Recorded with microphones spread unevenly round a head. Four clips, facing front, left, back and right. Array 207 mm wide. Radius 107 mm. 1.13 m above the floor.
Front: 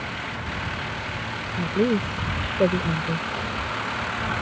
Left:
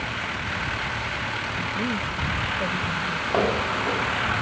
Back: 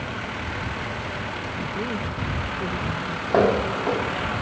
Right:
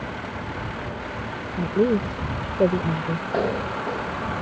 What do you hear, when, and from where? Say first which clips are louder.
1.6 s a woman speaking: right 10 dB, front 9 dB; 65° right; by 3.2 s 55° right
3.3 s footsteps: left 2 dB, back 10 dB; straight behind